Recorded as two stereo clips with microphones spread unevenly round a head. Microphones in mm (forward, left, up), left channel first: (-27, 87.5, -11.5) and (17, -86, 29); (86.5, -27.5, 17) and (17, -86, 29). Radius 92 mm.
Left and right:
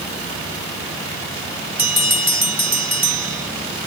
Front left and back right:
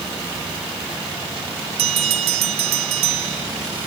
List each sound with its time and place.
1.8 s a bell: 155° right